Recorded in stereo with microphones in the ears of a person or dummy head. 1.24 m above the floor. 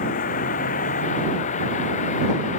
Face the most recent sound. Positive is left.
turn(degrees=40)  # may be behind; listen again after turning